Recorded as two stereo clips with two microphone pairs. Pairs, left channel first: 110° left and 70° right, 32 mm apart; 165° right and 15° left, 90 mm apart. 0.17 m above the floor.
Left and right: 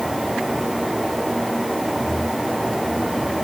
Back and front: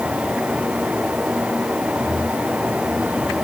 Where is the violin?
I don't hear a violin.